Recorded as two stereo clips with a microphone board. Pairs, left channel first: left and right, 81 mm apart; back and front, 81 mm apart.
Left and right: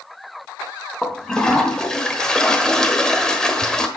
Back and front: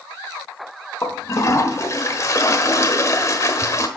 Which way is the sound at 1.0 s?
165° left.